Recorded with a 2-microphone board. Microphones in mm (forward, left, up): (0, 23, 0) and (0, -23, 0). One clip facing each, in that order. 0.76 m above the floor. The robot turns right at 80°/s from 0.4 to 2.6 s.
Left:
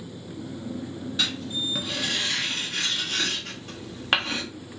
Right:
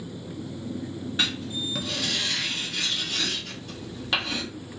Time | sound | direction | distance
1.2 | writing | 30° right (ahead or behind) | 1.3 m